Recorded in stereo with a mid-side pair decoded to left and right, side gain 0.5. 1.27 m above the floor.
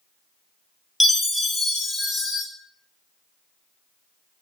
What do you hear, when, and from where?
1.0 s a chime: 15° left, 0.8 m